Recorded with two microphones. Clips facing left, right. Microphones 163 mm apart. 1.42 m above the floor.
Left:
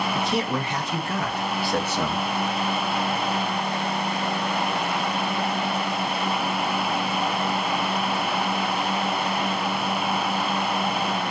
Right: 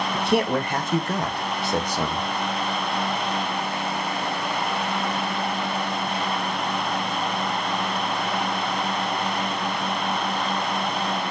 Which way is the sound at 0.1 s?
65° right (ahead or behind).